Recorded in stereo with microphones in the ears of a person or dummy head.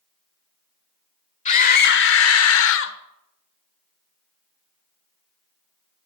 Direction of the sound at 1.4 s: 35° left (ahead or behind).